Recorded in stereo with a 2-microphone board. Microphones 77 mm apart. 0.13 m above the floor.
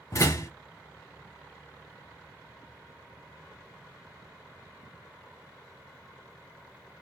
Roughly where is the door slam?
Left.